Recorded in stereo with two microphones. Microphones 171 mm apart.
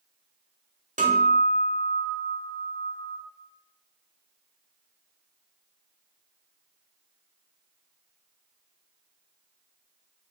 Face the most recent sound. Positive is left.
turn(degrees=-50)  # may be behind; listen again after turning